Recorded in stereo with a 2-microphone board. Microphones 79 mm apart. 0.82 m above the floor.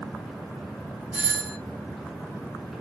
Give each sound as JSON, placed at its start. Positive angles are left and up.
{"t": 1.1, "sound": "a doorbell", "side_deg": -15, "distance_m": 0.9}